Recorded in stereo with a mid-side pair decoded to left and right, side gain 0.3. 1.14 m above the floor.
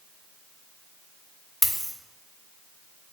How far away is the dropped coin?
About 1.4 m.